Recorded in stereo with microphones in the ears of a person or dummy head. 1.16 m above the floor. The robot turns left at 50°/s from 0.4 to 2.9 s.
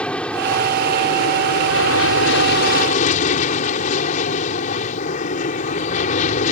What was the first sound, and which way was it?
An aircraft, 170° left.